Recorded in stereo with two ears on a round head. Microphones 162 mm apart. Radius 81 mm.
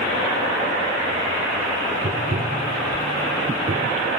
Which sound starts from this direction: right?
Tapping, at 2.0 s.